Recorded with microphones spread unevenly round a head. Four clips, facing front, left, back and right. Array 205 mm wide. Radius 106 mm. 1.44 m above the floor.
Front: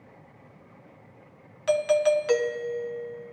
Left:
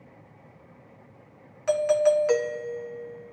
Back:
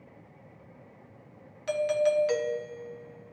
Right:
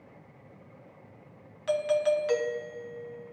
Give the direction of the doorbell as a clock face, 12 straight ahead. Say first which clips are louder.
Left 5 dB, front 4 dB; 10 o'clock.